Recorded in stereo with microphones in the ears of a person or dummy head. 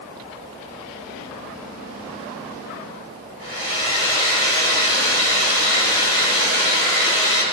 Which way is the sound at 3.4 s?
55° right (ahead or behind).